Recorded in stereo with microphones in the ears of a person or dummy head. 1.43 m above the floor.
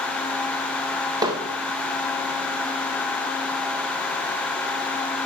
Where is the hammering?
20° right (ahead or behind), 1.1 m.